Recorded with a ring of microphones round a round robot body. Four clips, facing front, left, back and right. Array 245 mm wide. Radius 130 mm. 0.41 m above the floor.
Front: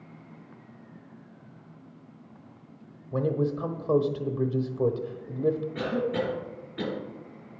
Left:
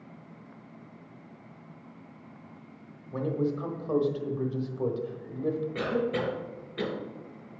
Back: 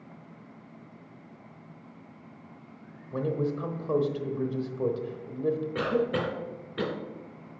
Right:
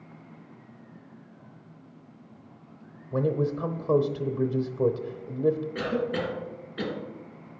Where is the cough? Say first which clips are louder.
Even, back 1 dB; 165° left, 2.5 m.